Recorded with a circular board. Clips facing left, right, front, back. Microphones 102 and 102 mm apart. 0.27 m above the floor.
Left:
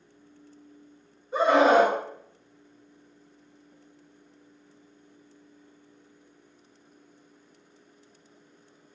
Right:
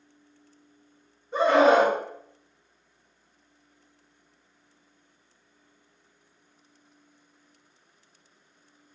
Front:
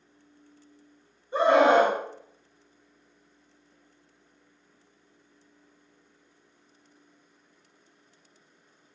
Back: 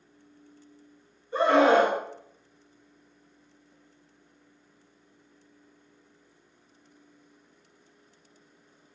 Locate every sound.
1.3 s a scream: 10° left, 1.0 m